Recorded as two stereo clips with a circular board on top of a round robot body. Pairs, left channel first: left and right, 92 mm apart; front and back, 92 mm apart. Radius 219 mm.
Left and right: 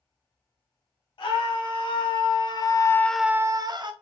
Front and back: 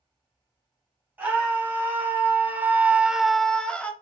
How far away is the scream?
About 2 m.